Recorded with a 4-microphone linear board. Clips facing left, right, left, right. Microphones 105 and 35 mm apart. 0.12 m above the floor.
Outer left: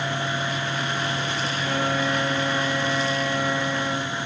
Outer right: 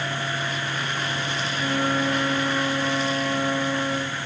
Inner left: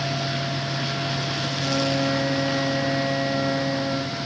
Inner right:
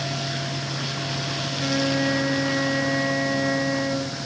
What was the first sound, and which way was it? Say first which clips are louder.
A flute: outer right 2 dB, inner right 1 dB; 60° right (ahead or behind).